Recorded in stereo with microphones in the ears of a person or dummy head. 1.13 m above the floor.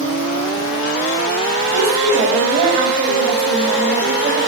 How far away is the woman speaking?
About 6 m.